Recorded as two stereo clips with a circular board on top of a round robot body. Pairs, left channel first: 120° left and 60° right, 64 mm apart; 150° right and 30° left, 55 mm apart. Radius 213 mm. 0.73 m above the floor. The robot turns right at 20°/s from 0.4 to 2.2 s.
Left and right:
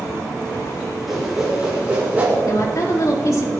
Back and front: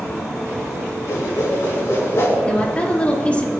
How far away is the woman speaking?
About 3 m.